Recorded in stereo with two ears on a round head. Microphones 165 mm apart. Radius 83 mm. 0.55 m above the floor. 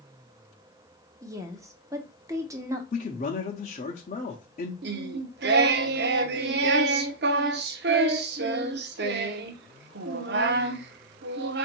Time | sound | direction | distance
1.2 | a woman speaking | 15° right (ahead or behind) | 0.8 m
2.9 | a man speaking | 40° left (ahead or behind) | 0.8 m
4.8 | singing | 60° right (ahead or behind) | 0.6 m